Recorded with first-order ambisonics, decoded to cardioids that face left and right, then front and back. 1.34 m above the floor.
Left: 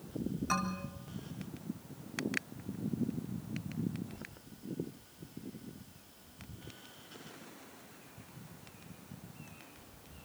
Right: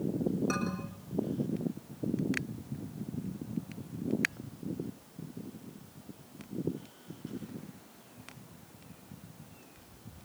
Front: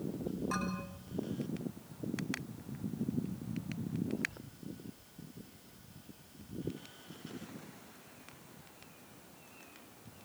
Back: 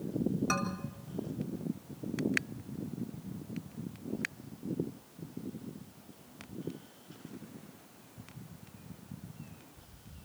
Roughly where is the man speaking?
Behind.